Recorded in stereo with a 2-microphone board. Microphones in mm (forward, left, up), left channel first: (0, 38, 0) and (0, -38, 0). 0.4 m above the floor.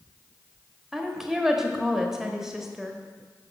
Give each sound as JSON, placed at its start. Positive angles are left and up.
{"t": 0.9, "sound": "a woman speaking", "side_deg": -5, "distance_m": 1.2}